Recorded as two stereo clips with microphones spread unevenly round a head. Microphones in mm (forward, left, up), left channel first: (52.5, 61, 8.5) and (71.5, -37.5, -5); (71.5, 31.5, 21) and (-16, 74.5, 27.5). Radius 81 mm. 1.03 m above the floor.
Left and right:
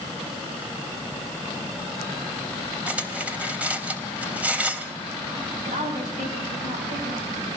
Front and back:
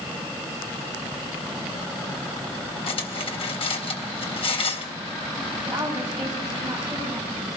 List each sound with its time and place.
2.9 s cutlery clinking: straight ahead, 3.5 m
5.7 s a woman speaking: 115° right, 6 m